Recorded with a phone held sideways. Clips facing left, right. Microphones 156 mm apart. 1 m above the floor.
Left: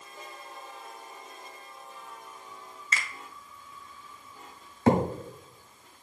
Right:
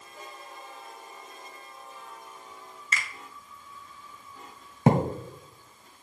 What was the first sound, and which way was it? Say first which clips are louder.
A finger snap: even; 30° left (ahead or behind).